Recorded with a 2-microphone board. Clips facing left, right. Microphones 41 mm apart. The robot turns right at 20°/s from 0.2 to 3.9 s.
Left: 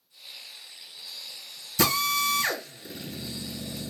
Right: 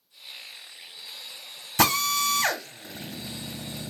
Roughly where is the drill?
Right.